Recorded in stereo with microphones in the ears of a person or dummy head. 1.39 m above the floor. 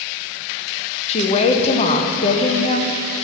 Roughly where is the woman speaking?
Left.